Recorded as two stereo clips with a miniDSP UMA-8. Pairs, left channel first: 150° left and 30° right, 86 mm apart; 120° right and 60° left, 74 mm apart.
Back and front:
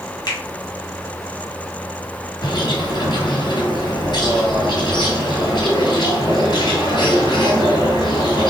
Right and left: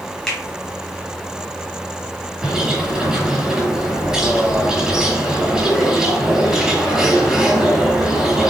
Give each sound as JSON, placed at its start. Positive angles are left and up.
{"t": 0.3, "sound": "a finger snap", "azimuth_deg": 160, "distance_m": 1.9}
{"t": 2.4, "sound": "a bird", "azimuth_deg": 145, "distance_m": 1.5}